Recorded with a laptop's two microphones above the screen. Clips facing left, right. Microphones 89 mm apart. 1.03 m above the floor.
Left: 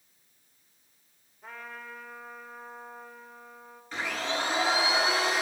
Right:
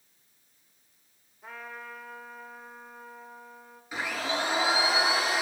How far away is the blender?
About 4.5 m.